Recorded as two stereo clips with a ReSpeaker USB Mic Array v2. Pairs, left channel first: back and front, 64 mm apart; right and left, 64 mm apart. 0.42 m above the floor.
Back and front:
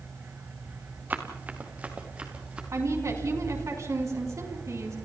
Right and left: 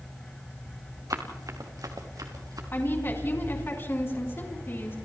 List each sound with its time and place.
1.1 s running footsteps: 60° left, 3 m; by 2.6 s 70° left, 3.5 m
2.7 s a woman speaking: 35° right, 4.5 m